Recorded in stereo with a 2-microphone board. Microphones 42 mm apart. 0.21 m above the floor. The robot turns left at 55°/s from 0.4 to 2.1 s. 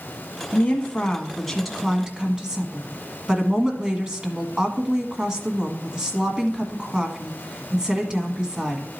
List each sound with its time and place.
0.5 s a woman speaking: 60° left, 1.5 m; by 8.8 s 25° right, 1.5 m